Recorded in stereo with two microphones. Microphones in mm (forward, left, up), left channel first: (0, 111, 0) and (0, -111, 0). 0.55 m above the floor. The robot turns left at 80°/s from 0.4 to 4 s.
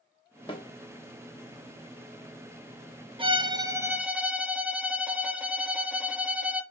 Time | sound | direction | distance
0.5 | a snare drum | 25° left (ahead or behind) | 1.0 m
3.2 | a violin | 25° right (ahead or behind) | 0.6 m